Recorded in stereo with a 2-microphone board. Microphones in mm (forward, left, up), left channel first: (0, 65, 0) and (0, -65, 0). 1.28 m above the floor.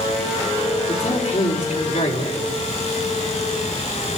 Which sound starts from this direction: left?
A man speaking, at 0.9 s.